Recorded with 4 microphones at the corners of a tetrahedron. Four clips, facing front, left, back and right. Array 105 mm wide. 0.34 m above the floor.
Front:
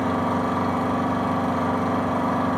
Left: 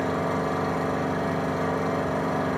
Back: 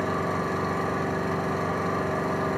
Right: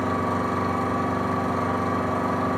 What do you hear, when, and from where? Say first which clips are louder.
0.0 s an engine running: right 1 dB, front 4 dB; straight ahead, 5.5 m